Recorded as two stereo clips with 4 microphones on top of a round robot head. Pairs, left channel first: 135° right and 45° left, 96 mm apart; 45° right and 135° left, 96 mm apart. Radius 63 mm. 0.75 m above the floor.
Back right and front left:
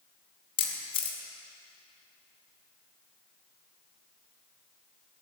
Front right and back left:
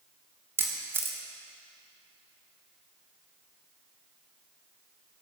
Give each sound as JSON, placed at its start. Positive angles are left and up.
{"t": 0.6, "sound": "a camera shutter", "azimuth_deg": -160, "distance_m": 1.7}